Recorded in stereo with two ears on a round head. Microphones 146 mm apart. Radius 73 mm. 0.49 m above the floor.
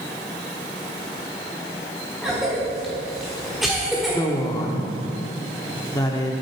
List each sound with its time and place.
2.2 s a cough: centre (ahead or behind), 1.3 m
4.1 s a woman speaking: 20° left (ahead or behind), 0.8 m